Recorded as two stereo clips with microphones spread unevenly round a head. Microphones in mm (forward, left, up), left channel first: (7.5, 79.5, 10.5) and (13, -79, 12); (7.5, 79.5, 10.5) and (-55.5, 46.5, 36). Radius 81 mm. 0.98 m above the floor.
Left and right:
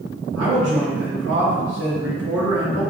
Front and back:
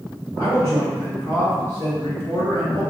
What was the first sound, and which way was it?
A man speaking, 85° right.